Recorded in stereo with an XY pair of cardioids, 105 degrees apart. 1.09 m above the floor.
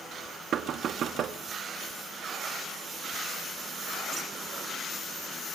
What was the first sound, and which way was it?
Knocking, 60° right.